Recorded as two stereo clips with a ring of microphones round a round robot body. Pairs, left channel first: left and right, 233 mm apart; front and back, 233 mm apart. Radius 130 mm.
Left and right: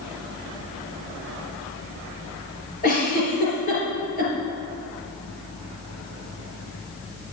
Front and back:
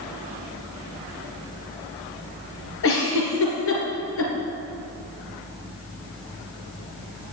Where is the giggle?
30° left, 3.5 m.